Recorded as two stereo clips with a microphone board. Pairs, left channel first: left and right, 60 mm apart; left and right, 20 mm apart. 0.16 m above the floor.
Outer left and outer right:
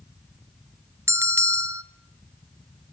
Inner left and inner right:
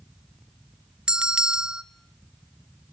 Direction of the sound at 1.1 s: 45° right (ahead or behind).